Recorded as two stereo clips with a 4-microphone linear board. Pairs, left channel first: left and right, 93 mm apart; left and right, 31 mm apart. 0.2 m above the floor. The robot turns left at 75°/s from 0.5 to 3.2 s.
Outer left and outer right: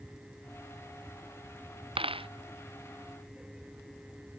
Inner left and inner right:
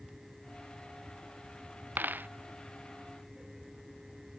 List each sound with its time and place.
2.0 s a dropped coin: 80° right; by 2.3 s 75° right (ahead or behind)